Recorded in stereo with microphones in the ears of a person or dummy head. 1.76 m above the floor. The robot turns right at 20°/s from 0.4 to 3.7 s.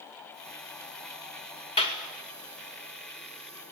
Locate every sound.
1.8 s a clap: 30° left (ahead or behind), 2.5 m; by 2.0 s 25° left (ahead or behind), 2.5 m